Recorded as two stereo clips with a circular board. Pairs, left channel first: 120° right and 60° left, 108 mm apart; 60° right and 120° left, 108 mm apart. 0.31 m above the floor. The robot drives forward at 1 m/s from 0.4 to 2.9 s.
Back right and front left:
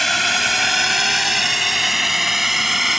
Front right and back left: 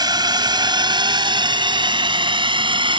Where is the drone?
150° left; by 3.0 s 145° left.